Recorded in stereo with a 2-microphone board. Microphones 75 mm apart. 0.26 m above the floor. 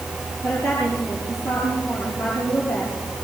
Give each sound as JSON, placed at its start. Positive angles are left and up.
{"t": 0.4, "sound": "a woman speaking", "side_deg": 10, "distance_m": 7.5}